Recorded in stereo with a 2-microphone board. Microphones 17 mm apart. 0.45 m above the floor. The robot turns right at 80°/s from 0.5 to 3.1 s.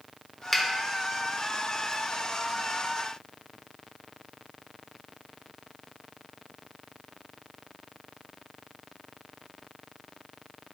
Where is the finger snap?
15° left (ahead or behind), 0.8 m; by 0.6 s 20° left (ahead or behind), 0.8 m.